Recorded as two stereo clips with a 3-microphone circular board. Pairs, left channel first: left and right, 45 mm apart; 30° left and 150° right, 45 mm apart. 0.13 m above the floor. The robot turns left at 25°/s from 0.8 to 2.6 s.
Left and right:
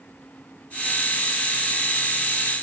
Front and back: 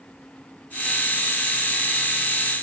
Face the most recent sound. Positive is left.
No sound to turn to.